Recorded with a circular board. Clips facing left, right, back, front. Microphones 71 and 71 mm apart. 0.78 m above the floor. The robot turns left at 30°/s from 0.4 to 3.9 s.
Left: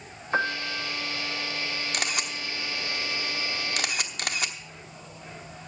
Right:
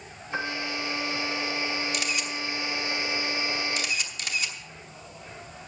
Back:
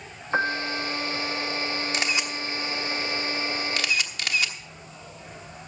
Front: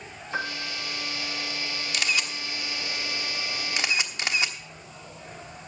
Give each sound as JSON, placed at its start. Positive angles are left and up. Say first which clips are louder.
{"t": 0.3, "sound": "a piano", "louder": "left 4 dB, back 7 dB", "azimuth_deg": 140, "distance_m": 1.1}
{"t": 1.9, "sound": "a camera shutter", "louder": "even, back 1 dB", "azimuth_deg": 120, "distance_m": 1.0}